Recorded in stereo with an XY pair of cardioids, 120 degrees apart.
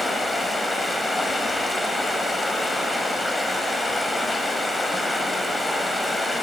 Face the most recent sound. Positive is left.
turn(degrees=10)